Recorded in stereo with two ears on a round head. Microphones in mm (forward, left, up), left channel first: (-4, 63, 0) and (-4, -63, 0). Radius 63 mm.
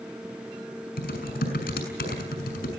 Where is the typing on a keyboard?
75° left (ahead or behind), 6 m.